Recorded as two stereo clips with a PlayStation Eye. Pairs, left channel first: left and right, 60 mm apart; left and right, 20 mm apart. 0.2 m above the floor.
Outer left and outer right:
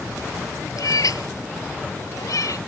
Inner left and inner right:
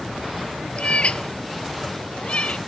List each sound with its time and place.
0.8 s a cat meowing: 75° left (ahead or behind); by 2.6 s 70° left (ahead or behind)